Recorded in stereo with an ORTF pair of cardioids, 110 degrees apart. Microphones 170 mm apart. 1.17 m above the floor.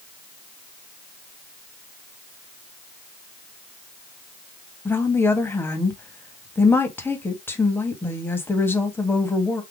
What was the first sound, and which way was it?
A woman speaking, 15° left.